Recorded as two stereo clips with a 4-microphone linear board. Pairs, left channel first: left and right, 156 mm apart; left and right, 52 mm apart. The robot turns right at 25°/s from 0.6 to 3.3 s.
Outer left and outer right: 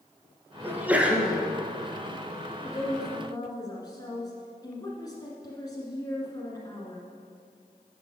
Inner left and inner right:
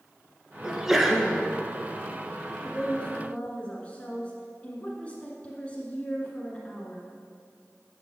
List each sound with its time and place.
0.6 s a sneeze: 15° right (ahead or behind), 1.3 m; by 1.4 s centre (ahead or behind), 1.3 m
2.6 s a woman speaking: 25° left (ahead or behind), 1.5 m